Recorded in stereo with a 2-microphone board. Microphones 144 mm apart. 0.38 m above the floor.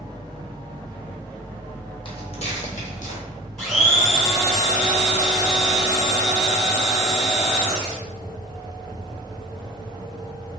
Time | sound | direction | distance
2.0 | footsteps | 40° left (ahead or behind) | 0.9 m
3.6 | a blender | centre (ahead or behind) | 1.4 m